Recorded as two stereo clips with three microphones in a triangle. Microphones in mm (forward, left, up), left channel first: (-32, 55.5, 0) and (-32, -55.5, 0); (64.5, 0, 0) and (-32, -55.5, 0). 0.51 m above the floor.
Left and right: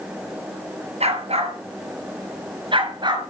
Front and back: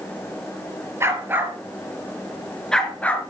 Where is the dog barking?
85° right, 3.5 m; by 3.2 s 45° right, 3 m.